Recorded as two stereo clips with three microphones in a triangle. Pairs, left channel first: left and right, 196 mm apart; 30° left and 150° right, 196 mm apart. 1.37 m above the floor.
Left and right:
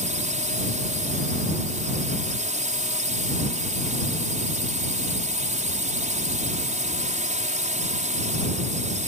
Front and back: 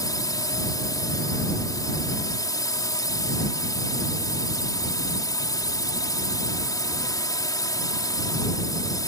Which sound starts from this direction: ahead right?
A drone, at 0.0 s.